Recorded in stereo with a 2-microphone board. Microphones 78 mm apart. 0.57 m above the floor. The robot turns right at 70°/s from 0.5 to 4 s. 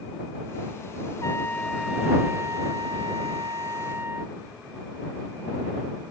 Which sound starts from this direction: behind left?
A trumpet, at 1.2 s.